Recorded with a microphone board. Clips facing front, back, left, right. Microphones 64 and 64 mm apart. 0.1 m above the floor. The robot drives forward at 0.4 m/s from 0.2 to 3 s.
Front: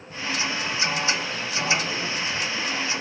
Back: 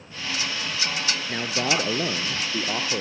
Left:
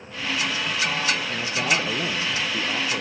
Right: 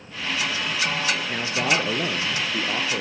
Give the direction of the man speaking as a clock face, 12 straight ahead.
5 o'clock.